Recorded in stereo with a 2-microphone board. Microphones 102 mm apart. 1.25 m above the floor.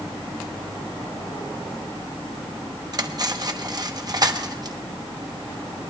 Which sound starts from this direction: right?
Cutlery clinking, at 2.9 s.